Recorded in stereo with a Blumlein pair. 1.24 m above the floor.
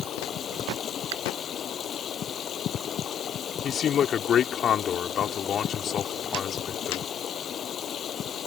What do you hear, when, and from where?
0.0 s running water: 25° left
1.1 s a finger snap: 50° right
3.6 s a man speaking: 25° left